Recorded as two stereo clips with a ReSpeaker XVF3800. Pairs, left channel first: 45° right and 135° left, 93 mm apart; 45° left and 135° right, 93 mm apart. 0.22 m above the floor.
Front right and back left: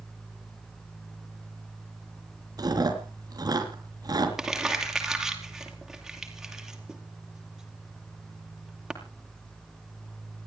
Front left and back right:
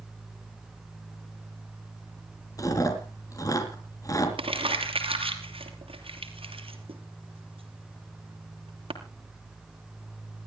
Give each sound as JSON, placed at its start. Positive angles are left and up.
{"t": 2.6, "sound": "chewing", "azimuth_deg": 95, "distance_m": 3.5}
{"t": 4.4, "sound": "crumpling", "azimuth_deg": -140, "distance_m": 3.0}